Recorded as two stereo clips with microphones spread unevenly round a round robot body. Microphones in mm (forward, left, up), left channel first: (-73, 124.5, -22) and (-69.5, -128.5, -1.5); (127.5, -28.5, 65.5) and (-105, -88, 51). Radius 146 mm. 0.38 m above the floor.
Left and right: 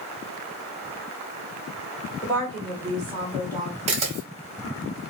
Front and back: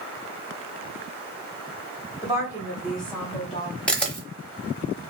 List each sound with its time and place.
2.2 s a woman speaking: 150° left, 1.4 m; by 3.8 s 30° right, 1.3 m
3.9 s a camera shutter: 70° right, 1.1 m